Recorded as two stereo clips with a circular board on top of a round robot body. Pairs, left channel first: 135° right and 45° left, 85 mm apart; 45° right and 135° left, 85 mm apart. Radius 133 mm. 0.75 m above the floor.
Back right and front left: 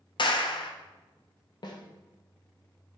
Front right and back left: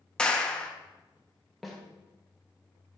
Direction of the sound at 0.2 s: 125° right.